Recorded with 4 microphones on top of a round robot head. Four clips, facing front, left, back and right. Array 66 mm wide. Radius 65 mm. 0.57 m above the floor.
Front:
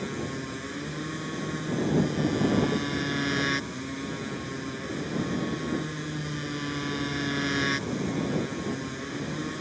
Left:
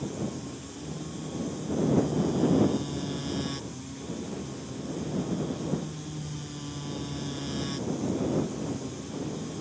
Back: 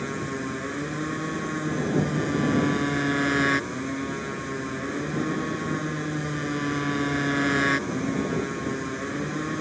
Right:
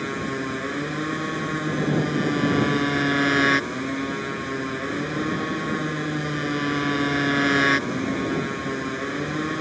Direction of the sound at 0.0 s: 110° right.